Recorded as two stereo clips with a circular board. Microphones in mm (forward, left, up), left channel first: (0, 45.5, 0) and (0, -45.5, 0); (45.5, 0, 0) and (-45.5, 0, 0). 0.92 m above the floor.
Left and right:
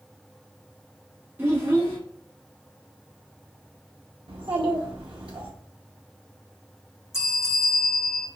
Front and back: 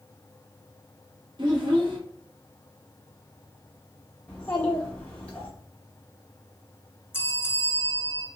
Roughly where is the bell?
Ahead left.